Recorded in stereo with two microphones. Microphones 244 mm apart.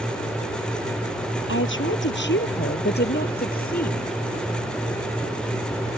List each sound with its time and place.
1.5 s a woman speaking: 55° left (ahead or behind); by 4.2 s 35° left (ahead or behind)